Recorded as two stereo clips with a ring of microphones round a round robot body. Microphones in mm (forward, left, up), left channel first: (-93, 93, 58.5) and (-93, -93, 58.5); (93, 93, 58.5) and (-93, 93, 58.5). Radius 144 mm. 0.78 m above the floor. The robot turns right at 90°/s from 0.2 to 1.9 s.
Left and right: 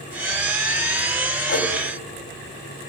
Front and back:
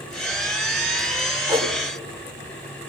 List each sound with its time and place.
1.5 s a whoosh: 105° left, 2.5 m; by 1.7 s 130° left, 2.5 m